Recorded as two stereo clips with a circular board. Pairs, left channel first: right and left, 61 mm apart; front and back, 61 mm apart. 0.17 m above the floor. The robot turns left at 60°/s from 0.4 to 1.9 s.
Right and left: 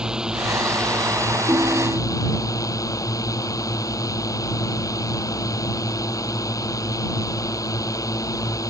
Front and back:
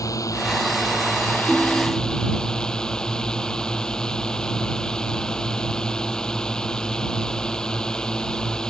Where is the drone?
15° left; by 8.7 s 75° right.